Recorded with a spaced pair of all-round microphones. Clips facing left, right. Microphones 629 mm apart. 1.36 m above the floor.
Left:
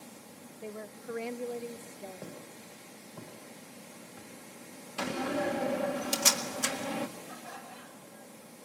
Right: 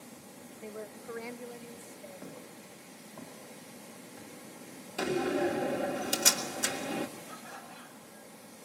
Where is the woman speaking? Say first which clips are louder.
Left 1 dB; 10° left (ahead or behind), 0.6 m; by 2.6 s 85° left, 2.0 m.